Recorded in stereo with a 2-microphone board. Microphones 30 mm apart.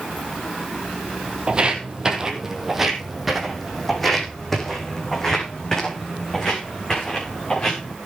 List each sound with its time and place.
1.5 s footsteps: 30° right (ahead or behind), 2.5 m; by 7.9 s 25° left (ahead or behind), 7 m